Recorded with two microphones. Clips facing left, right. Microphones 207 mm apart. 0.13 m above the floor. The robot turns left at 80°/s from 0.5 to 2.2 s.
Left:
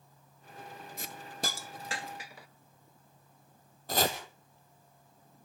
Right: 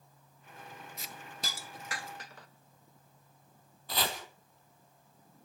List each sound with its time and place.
1.0 s a hiss: 55° left (ahead or behind), 0.7 m; by 2.5 s 10° left (ahead or behind), 0.7 m
3.9 s chopping: 50° left (ahead or behind), 2 m